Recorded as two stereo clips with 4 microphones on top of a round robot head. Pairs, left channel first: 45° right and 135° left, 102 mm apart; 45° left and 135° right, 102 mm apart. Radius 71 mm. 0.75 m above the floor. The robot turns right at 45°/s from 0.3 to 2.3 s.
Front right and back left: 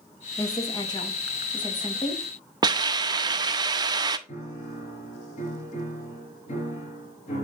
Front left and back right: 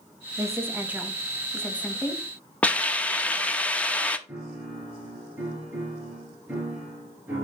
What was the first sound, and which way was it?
A woman speaking, 90° right.